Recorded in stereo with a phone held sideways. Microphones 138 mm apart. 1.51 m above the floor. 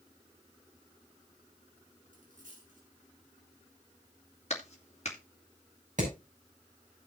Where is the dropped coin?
75° right (ahead or behind), 6.5 m.